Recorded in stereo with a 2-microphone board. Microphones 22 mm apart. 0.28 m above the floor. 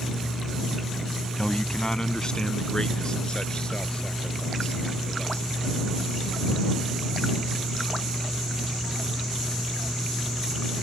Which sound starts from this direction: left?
A man speaking, at 1.4 s.